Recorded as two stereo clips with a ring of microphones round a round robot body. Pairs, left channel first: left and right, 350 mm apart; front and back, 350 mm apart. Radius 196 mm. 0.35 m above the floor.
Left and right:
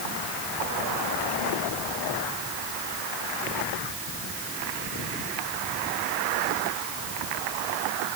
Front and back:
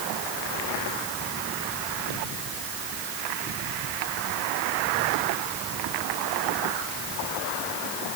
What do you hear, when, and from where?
Only background noise.